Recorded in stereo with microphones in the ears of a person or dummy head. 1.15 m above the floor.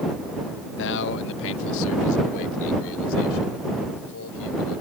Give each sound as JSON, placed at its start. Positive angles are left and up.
{"t": 0.8, "sound": "a man speaking", "side_deg": 65}